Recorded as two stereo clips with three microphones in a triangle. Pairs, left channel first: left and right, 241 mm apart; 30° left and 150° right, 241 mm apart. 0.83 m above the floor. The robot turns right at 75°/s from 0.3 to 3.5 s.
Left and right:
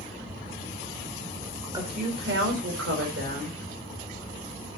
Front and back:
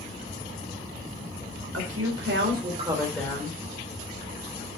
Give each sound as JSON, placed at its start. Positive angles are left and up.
{"t": 1.7, "sound": "a woman speaking", "azimuth_deg": -165, "distance_m": 3.5}